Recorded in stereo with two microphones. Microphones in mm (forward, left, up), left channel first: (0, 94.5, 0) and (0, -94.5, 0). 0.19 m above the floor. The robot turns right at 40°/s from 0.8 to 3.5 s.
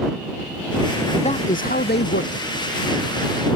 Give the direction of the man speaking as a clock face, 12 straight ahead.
11 o'clock.